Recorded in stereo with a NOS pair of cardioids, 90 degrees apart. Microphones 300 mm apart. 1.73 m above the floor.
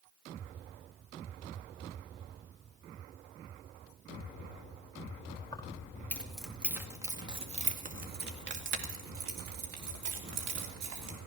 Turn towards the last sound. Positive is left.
turn(degrees=-75)